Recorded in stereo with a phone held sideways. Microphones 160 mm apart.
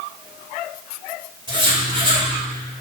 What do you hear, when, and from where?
1.5 s writing: 30° right (ahead or behind), 4.5 m